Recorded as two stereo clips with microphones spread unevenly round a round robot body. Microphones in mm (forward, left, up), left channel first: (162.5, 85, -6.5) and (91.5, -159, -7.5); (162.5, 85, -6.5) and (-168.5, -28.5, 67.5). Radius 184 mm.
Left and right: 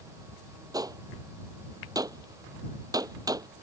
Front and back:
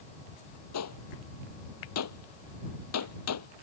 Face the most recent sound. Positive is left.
turn(degrees=-30)